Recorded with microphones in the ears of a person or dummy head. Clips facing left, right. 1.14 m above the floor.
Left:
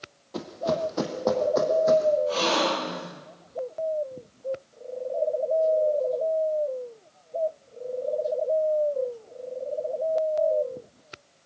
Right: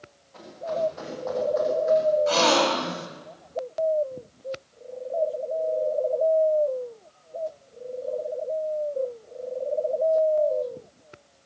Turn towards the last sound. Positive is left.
turn(degrees=-85)